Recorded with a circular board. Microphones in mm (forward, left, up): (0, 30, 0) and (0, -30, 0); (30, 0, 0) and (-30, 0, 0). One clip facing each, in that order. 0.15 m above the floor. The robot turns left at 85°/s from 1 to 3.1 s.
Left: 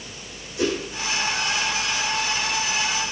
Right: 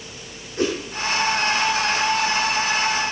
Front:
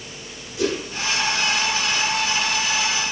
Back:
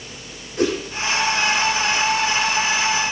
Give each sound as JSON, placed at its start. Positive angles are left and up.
{"t": 0.6, "sound": "a whoosh", "azimuth_deg": -135, "distance_m": 6.5}